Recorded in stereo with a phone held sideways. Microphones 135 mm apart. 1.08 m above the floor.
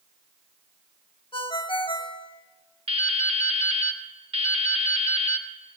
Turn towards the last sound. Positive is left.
turn(degrees=-45)  # may be behind; listen again after turning